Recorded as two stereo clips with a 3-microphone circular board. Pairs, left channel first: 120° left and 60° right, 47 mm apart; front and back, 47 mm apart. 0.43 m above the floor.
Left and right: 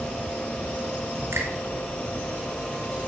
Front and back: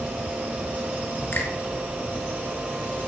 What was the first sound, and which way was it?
A finger snap, 35° right.